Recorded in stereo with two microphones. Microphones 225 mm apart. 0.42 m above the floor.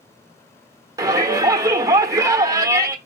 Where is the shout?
15° right (ahead or behind), 1.2 m.